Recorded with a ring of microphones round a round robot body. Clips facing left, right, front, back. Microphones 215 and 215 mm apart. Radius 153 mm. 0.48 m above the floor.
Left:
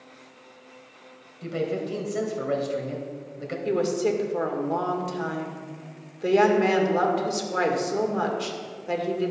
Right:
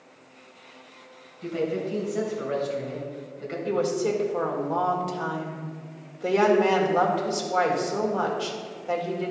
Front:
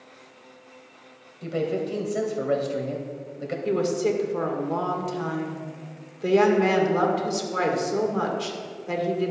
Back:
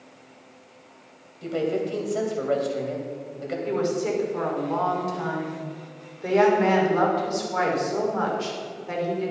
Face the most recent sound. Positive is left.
turn(degrees=30)